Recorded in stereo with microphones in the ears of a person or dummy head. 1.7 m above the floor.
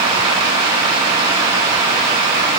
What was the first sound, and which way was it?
Only background noise.